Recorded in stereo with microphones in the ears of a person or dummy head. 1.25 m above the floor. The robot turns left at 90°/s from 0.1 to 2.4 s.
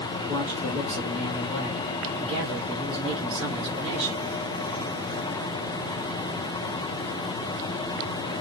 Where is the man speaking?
175° right, 1.9 m; by 4.3 s 10° right, 1.9 m.